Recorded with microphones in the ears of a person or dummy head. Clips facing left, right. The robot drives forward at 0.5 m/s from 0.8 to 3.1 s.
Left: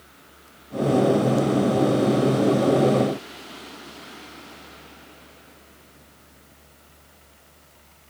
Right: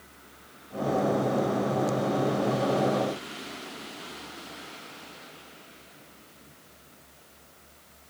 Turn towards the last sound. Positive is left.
No sound to turn to.